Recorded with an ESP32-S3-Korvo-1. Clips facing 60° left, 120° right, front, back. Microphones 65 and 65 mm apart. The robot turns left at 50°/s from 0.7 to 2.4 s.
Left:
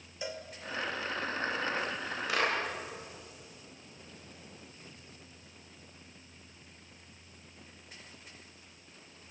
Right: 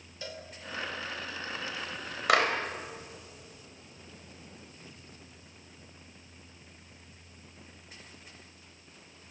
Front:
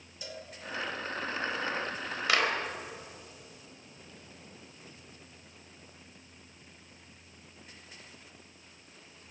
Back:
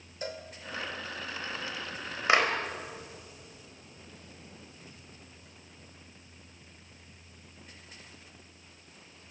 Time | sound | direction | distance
0.2 | a cowbell | 130° left | 2 m
2.3 | a clap | 115° right | 4 m